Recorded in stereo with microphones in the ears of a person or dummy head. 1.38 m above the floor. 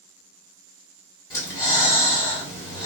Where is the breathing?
20° left (ahead or behind), 1.7 m.